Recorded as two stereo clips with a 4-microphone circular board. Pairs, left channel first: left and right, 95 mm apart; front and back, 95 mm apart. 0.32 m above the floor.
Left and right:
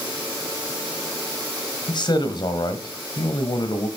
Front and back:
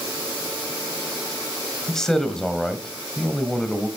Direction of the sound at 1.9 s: 85° left.